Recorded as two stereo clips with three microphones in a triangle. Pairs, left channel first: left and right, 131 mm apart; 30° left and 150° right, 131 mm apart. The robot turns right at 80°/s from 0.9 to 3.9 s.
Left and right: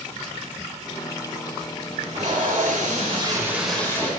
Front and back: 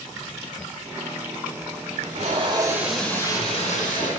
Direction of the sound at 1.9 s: 140° right.